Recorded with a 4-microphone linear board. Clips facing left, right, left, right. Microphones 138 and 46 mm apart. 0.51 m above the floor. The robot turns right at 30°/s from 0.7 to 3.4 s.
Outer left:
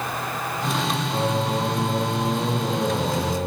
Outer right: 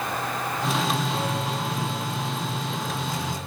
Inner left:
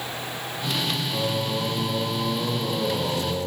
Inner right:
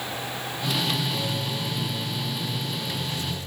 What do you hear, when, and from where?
1.1 s singing: 25° left; by 3.5 s 95° left